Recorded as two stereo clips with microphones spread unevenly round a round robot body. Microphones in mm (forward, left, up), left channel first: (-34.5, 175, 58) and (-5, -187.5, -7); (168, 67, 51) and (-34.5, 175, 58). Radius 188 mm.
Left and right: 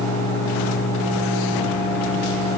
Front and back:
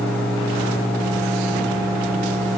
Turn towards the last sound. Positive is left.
No sound to turn to.